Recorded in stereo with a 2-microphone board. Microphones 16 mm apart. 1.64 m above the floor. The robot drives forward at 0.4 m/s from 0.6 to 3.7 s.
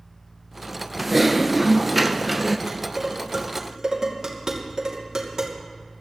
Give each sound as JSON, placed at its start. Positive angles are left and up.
{"t": 1.0, "sound": "typing on a keyboard", "side_deg": -5, "distance_m": 0.8}
{"t": 2.7, "sound": "dishes clattering", "side_deg": -35, "distance_m": 3.0}